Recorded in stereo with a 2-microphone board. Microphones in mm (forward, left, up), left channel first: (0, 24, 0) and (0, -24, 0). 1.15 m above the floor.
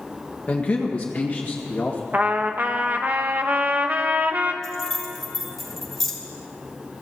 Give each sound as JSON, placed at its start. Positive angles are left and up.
{"t": 0.5, "sound": "a man speaking", "side_deg": 30, "distance_m": 1.4}
{"t": 2.1, "sound": "a trumpet", "side_deg": -40, "distance_m": 1.0}
{"t": 4.6, "sound": "keys jangling", "side_deg": 5, "distance_m": 3.0}